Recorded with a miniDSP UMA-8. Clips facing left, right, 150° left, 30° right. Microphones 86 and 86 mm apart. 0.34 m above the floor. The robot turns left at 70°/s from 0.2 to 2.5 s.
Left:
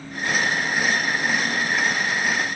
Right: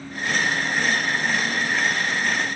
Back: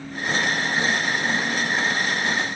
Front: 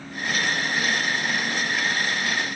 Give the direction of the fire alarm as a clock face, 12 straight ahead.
I don't hear a fire alarm.